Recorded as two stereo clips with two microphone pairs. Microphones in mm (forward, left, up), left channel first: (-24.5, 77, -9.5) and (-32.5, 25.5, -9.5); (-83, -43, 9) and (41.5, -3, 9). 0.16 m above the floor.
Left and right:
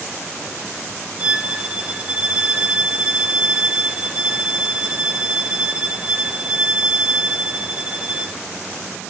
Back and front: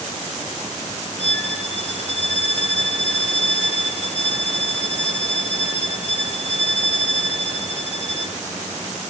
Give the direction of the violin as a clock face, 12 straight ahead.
5 o'clock.